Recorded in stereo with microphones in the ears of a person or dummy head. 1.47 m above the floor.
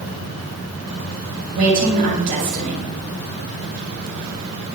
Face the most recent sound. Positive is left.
turn(degrees=-45)  # may be behind; listen again after turning